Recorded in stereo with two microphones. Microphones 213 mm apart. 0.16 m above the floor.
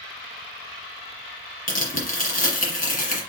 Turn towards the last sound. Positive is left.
turn(degrees=40)  # may be behind; listen again after turning